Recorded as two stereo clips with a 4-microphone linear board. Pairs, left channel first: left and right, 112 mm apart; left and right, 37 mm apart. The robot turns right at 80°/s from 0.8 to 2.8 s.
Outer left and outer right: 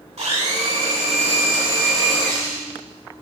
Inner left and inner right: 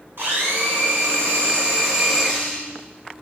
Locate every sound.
0.2 s a blender: 105° right, 2 m; by 2.7 s 45° left, 2 m